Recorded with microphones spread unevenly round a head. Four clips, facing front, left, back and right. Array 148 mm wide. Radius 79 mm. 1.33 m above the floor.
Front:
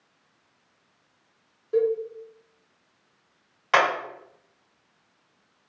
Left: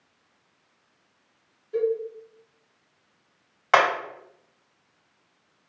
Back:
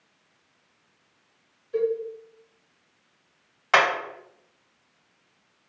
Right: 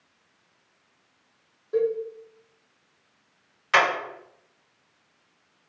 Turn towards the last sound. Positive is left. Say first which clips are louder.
# left 2 dB, even
turn(degrees=90)